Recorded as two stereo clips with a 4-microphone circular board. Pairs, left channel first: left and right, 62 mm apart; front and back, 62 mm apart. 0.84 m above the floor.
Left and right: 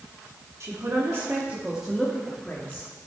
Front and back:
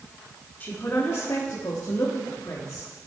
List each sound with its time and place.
0.6 s a man speaking: 60° right, 1.8 m; by 2.9 s 35° left, 1.9 m